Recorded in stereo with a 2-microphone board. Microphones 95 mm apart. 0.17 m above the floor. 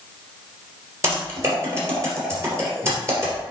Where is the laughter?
I don't hear laughter.